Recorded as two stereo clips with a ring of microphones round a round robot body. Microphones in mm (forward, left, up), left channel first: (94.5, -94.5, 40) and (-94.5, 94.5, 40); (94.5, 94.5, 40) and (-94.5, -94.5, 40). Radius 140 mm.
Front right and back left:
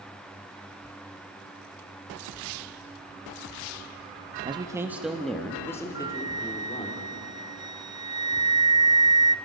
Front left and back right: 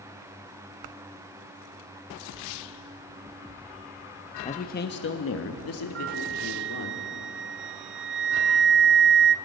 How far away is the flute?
About 0.6 m.